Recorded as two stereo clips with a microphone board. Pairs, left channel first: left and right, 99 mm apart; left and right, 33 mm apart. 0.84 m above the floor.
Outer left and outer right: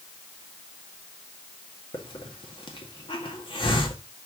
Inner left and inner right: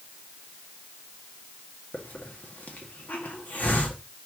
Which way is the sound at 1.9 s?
55° left (ahead or behind).